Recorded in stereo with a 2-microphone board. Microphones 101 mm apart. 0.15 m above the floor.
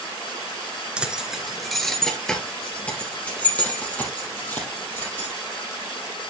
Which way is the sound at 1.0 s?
10° right (ahead or behind).